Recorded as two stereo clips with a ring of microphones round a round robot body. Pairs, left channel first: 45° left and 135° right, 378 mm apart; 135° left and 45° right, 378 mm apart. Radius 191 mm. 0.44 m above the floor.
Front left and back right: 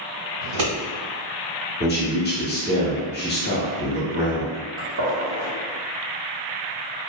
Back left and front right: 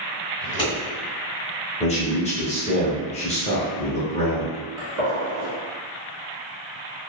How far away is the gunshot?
About 1.1 m.